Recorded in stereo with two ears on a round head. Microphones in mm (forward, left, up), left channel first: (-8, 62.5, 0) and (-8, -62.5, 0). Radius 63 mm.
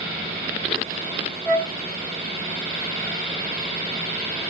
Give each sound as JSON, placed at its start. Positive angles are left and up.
{"t": 1.4, "sound": "a flute", "side_deg": 0, "distance_m": 1.3}